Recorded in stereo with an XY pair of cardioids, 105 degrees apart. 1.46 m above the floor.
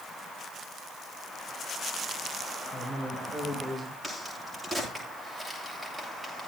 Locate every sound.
2.7 s a man speaking: 25° right, 7 m; by 3.9 s 20° right, 5.5 m
4.0 s a crack: 15° right, 8.5 m